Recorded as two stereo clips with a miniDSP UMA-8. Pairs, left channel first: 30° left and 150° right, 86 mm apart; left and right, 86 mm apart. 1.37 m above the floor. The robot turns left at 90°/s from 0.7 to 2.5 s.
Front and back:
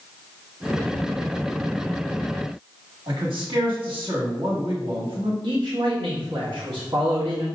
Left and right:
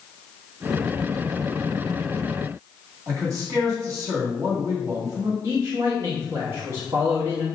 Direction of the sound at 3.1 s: 135° right.